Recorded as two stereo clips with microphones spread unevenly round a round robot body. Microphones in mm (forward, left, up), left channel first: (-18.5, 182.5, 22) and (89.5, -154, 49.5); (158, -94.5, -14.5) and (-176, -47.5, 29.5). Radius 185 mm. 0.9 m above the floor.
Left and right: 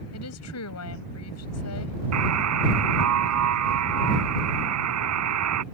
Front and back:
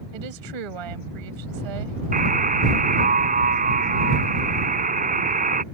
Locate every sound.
0.1 s a woman speaking: 160° left
2.1 s a buzzer: 120° right